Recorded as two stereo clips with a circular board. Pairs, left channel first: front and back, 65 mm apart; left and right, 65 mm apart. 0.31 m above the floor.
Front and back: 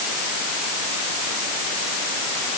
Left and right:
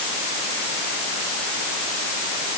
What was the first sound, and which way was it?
Only background noise.